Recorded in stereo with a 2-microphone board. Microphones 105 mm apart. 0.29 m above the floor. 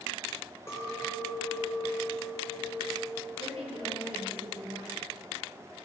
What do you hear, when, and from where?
0.7 s a clink: 25° left (ahead or behind), 3 m
3.4 s a woman speaking: 65° right (ahead or behind), 4 m